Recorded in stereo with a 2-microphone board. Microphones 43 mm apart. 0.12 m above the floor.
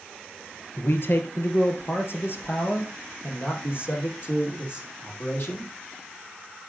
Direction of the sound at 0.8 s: 55° left (ahead or behind).